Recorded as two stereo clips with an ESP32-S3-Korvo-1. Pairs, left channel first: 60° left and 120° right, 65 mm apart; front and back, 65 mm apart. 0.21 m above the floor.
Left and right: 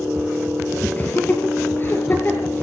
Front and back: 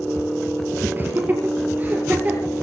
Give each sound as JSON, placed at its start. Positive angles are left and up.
{"t": 1.0, "sound": "laughter", "azimuth_deg": 120, "distance_m": 5.0}